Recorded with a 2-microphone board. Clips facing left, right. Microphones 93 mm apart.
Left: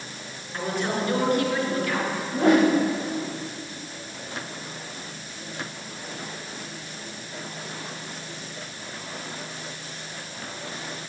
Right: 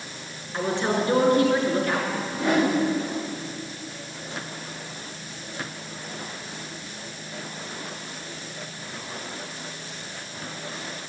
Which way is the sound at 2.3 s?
35° left (ahead or behind).